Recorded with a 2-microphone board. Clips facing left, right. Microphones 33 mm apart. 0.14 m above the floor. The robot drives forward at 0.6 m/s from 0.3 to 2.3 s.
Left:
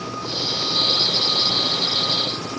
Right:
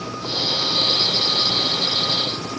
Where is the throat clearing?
I don't hear throat clearing.